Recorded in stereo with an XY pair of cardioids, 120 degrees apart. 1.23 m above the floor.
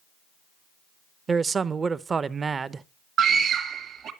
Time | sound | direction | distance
1.3 | a man speaking | 30° right | 0.6 m
3.2 | a scream | 55° right | 1.5 m